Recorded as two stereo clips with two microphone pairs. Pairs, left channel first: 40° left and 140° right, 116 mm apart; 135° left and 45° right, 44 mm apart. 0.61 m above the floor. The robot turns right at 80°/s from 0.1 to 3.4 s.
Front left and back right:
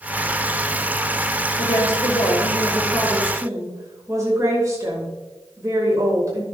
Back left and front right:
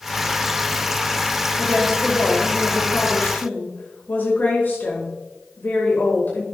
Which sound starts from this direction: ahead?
A woman speaking, at 1.6 s.